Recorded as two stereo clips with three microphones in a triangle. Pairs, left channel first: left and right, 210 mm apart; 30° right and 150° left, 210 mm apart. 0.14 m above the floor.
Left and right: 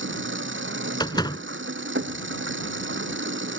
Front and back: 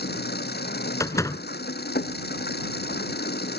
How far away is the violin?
I don't hear a violin.